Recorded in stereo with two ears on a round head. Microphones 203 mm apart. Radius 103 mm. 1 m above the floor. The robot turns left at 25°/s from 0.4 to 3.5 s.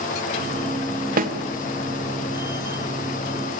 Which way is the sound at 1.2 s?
45° right (ahead or behind).